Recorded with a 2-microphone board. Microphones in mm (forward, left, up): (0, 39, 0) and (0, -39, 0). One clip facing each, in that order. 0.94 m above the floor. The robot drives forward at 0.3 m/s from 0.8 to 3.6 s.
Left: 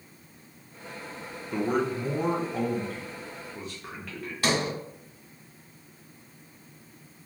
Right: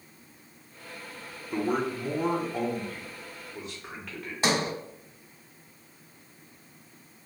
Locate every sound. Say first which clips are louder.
1.5 s a man speaking: left 1 dB; centre (ahead or behind), 0.5 m
4.4 s a sliding door: even; 25° right (ahead or behind), 0.7 m